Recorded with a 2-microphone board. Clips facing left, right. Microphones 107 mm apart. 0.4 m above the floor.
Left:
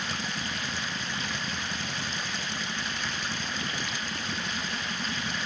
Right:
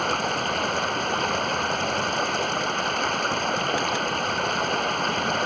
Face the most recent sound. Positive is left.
turn(degrees=-55)  # may be behind; listen again after turning